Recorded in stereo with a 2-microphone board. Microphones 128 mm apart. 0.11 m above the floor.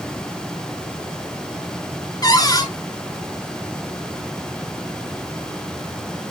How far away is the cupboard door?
About 1.1 m.